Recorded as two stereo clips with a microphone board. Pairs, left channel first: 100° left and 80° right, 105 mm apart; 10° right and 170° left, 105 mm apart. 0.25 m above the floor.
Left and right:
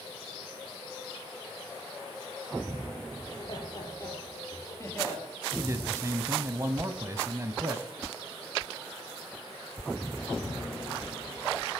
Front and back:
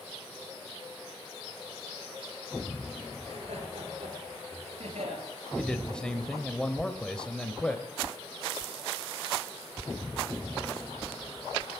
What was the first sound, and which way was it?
Laughter, 150° left.